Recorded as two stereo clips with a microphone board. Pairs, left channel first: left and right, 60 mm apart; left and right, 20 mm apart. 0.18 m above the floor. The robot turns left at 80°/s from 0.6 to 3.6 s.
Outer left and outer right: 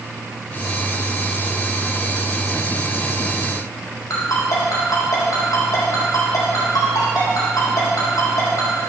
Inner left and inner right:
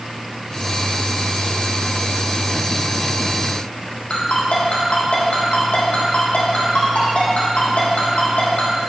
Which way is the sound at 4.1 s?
80° left.